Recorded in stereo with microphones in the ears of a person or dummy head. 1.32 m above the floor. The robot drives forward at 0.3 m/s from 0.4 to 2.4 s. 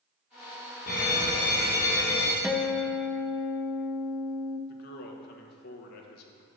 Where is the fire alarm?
55° left (ahead or behind), 2.5 m; by 2.3 s 50° left (ahead or behind), 3 m.